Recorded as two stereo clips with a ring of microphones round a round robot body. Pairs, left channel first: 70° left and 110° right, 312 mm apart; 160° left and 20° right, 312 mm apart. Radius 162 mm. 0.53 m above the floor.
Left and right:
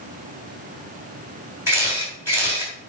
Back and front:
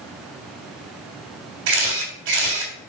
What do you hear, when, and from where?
1.7 s a camera shutter: 30° right, 3.5 m